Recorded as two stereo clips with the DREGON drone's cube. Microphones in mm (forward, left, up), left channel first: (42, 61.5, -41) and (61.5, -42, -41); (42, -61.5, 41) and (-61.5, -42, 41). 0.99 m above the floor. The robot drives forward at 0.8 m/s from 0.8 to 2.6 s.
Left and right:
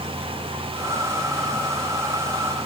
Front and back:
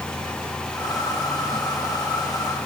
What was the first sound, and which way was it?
Only background noise.